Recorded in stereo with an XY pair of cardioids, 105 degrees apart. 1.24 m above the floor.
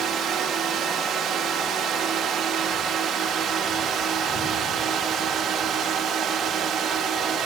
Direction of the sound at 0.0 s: 70° right.